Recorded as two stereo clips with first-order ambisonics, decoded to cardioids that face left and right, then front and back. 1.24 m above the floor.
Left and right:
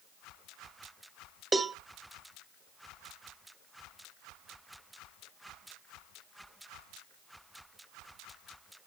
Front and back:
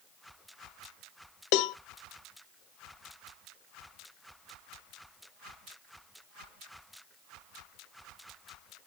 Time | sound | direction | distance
1.5 | a cowbell | 15° right | 0.5 m